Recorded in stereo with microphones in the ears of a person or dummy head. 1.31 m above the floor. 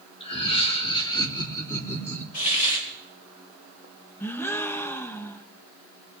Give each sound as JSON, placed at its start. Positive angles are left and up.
{"t": 0.2, "sound": "laughter", "side_deg": 40, "distance_m": 3.0}
{"t": 2.3, "sound": "a hiss", "side_deg": 40, "distance_m": 4.0}
{"t": 4.2, "sound": "a gasp", "side_deg": 10, "distance_m": 0.8}